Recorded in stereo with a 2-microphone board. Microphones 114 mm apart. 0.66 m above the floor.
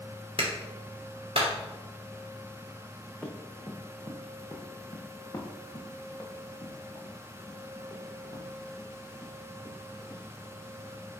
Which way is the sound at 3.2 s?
10° left (ahead or behind).